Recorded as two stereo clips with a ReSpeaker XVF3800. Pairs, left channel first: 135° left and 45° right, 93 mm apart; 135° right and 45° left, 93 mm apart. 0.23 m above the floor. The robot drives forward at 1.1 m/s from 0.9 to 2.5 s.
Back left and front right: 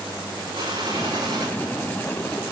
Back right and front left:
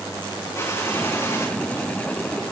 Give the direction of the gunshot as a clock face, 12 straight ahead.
2 o'clock.